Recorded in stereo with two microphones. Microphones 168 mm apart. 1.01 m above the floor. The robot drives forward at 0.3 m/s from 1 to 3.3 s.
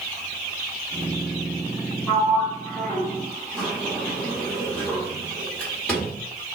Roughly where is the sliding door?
Centre.